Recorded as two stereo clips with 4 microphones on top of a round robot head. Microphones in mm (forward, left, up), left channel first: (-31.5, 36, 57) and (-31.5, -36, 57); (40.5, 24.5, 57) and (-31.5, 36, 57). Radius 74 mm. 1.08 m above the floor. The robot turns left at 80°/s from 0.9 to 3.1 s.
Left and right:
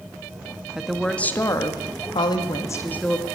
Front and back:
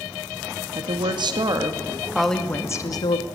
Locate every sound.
0.8 s a woman speaking: 175° right, 2 m; by 3.3 s 10° left, 2 m